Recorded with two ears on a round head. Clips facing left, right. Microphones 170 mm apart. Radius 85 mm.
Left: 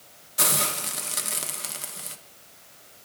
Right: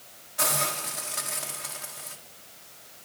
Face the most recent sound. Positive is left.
turn(degrees=45)  # may be behind; listen again after turning